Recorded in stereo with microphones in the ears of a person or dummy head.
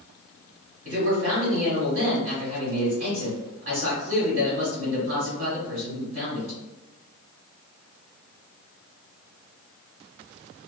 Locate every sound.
0.8 s a man speaking: 55° right (ahead or behind), 1.4 m